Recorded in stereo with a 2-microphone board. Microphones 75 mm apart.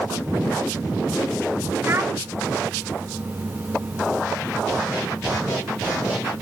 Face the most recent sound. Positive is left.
turn(degrees=-30)  # may be behind; listen again after turning